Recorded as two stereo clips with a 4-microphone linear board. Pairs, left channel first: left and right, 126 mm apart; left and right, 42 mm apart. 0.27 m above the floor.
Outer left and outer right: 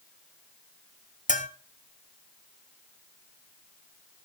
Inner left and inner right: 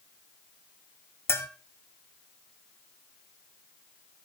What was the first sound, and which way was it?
A bell, 75° left (ahead or behind).